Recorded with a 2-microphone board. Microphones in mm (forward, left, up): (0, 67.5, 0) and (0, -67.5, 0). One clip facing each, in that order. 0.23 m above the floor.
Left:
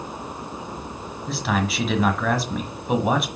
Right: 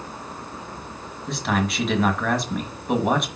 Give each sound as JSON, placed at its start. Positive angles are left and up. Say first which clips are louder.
{"t": 1.3, "sound": "a man speaking", "louder": "even", "side_deg": 0, "distance_m": 1.3}